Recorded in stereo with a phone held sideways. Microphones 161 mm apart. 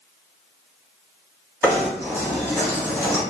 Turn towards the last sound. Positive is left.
turn(degrees=-15)  # may be behind; listen again after turning